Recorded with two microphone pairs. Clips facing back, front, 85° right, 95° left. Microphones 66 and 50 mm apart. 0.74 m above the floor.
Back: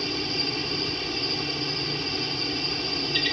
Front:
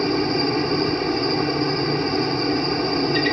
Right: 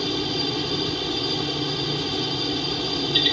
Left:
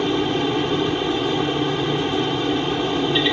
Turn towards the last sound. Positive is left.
turn(degrees=40)